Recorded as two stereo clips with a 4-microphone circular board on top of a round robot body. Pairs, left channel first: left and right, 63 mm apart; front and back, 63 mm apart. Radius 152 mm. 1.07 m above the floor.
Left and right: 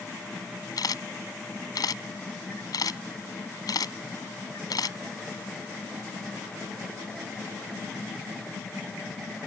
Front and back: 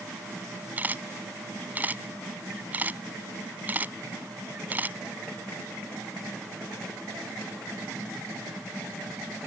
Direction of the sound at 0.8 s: 115° left.